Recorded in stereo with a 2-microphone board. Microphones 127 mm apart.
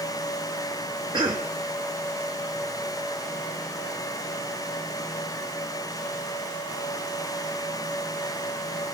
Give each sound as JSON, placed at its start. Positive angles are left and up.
{"t": 1.1, "sound": "a cough", "side_deg": -35, "distance_m": 1.2}